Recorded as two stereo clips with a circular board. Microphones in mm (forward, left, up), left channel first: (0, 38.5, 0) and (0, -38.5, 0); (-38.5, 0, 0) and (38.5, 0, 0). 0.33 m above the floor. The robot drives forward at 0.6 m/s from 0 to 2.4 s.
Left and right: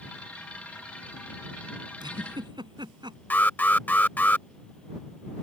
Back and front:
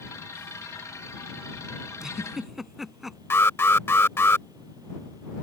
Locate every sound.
2.0 s a giggle: 80° right; by 3.2 s 85° right
3.3 s an alarm: 145° left